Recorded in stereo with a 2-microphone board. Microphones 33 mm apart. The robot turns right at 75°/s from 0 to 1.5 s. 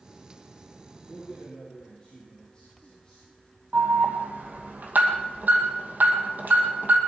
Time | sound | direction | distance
1.1 | a man speaking | straight ahead | 6 m
3.7 | an alarm | 60° right (ahead or behind) | 2.5 m